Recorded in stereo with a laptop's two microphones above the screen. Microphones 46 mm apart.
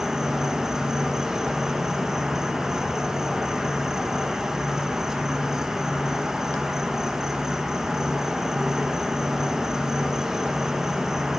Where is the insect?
10° right (ahead or behind), 1.0 m.